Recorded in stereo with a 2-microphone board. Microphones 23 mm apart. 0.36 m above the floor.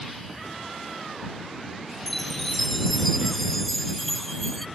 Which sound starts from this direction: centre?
A chime, at 2.1 s.